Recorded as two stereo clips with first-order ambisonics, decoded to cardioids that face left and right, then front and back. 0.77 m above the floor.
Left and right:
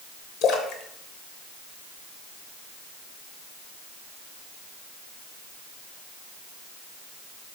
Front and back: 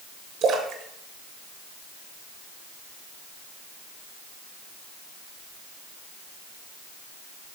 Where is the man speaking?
I don't hear a man speaking.